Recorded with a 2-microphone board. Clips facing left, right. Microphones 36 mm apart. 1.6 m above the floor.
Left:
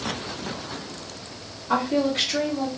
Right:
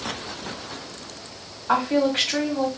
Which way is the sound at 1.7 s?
75° right (ahead or behind).